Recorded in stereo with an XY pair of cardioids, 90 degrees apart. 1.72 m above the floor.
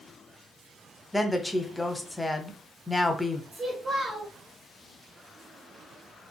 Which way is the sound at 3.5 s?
50° right.